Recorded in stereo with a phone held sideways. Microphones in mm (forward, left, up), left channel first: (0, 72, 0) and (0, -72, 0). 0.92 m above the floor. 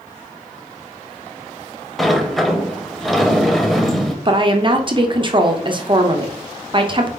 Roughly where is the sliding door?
Centre.